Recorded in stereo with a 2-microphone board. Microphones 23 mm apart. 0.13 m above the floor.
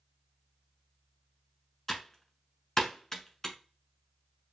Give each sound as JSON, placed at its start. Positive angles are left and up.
{"t": 1.9, "sound": "typing on a keyboard", "side_deg": 15, "distance_m": 1.0}